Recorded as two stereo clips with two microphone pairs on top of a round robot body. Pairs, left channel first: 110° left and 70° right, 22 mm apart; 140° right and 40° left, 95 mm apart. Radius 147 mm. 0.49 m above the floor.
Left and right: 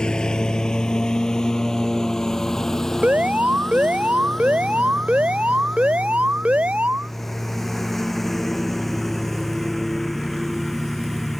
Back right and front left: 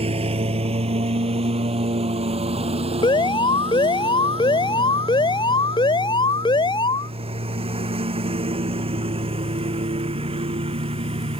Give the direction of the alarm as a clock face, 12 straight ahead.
4 o'clock.